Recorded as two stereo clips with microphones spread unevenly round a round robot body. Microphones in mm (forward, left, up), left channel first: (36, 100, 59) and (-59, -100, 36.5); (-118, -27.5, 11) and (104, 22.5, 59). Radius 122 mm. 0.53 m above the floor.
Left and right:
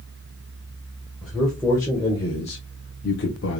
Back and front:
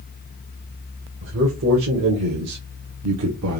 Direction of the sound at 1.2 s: 30° right.